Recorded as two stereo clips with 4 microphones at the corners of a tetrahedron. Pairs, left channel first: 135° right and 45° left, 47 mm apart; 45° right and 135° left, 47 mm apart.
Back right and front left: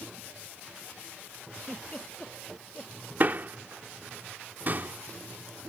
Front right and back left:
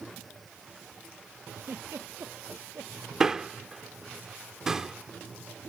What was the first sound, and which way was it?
A giggle, 160° left.